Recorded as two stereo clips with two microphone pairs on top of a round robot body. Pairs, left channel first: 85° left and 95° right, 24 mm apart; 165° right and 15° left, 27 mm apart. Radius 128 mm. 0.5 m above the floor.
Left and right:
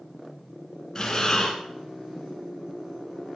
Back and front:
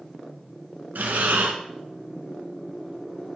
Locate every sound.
0.9 s breathing: 10° left, 1.2 m